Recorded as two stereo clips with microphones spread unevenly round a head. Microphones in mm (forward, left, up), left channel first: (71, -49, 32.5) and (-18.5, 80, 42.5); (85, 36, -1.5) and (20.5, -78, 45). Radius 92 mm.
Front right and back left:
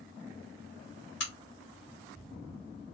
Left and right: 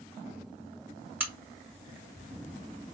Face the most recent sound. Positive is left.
turn(degrees=-45)